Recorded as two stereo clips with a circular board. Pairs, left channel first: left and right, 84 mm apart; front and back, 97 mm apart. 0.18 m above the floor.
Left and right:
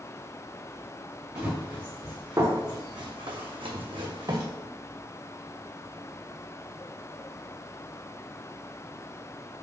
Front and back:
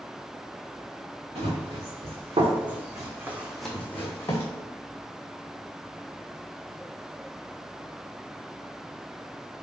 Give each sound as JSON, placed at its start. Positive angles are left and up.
{"t": 1.4, "sound": "running footsteps", "azimuth_deg": -165, "distance_m": 1.6}